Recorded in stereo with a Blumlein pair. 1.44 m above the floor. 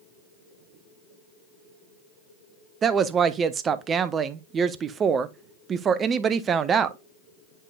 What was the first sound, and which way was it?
A woman speaking, 25° right.